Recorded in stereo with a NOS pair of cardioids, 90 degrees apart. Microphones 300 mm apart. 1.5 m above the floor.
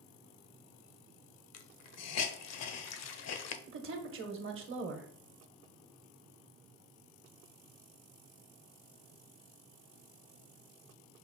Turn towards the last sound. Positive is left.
turn(degrees=-45)